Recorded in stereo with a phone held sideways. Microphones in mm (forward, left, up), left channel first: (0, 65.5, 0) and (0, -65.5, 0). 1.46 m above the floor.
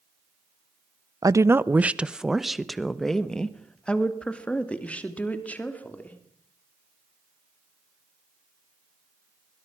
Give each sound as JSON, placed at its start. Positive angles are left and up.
{"t": 1.2, "sound": "a woman speaking", "side_deg": -25, "distance_m": 0.5}